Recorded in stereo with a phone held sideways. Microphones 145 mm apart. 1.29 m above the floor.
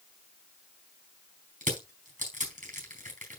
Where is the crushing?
70° right (ahead or behind), 4 m.